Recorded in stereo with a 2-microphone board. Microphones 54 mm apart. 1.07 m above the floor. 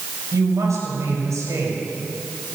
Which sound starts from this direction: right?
A woman speaking, at 0.3 s.